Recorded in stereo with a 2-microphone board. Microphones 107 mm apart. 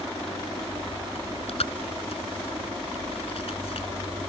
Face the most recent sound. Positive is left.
turn(degrees=65)  # may be behind; listen again after turning